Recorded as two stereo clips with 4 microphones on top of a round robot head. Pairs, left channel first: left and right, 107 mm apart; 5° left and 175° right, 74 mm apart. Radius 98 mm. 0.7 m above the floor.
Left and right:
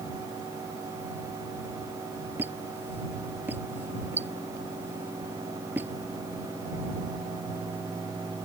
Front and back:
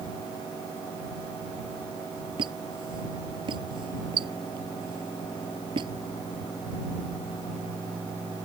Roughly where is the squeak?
Behind.